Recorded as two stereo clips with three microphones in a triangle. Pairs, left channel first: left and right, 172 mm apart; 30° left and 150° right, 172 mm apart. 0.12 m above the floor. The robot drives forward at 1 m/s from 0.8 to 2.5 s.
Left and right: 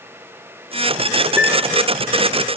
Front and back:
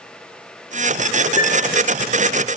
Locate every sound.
1.4 s a piano: 10° right, 4.5 m